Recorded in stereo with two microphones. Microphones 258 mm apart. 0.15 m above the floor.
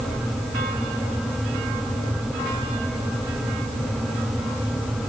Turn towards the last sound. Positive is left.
No sound to turn to.